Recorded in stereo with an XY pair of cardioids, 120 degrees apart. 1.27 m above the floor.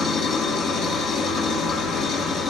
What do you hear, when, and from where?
0.0 s an engine running: 65° left, 1.7 m